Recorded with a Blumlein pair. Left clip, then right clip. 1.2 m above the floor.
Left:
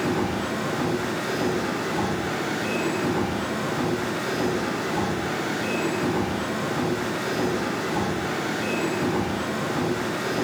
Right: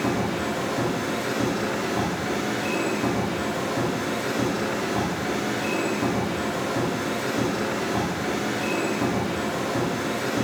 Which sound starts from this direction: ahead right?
A machine running, at 0.0 s.